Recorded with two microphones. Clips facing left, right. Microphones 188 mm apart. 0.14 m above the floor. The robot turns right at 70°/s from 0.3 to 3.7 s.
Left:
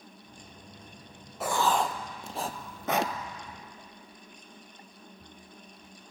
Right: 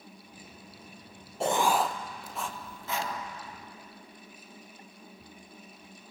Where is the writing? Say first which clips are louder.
Right 1 dB; 30° right (ahead or behind), 0.6 m; by 3.1 s 80° left, 0.6 m.